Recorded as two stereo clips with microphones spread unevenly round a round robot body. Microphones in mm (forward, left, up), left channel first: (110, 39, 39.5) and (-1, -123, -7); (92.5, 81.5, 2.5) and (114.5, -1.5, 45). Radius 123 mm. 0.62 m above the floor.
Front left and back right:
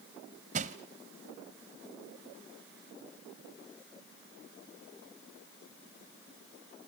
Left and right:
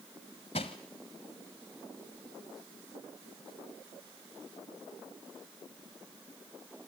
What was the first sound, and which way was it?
Crushing, 170° left.